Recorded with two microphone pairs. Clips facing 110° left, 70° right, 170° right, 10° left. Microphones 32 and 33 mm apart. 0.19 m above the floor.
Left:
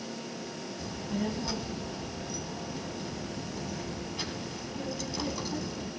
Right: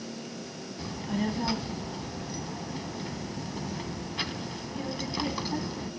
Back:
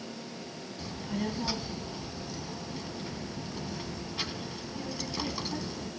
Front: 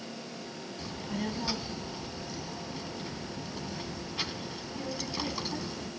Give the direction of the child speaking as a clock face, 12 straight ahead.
3 o'clock.